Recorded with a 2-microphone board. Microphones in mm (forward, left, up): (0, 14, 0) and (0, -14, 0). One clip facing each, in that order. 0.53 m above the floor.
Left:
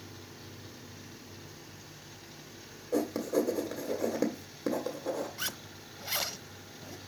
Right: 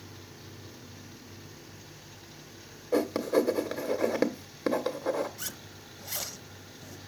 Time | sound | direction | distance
2.9 | writing | 50° right (ahead or behind) | 1.6 m
5.4 | a zipper | 35° left (ahead or behind) | 0.8 m